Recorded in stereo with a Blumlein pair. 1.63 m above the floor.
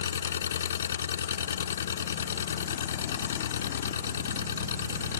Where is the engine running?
65° left.